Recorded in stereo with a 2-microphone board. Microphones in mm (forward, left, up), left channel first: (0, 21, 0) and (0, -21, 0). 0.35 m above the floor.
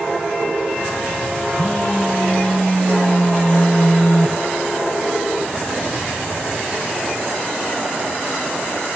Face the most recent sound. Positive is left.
turn(degrees=40)  # may be behind; listen again after turning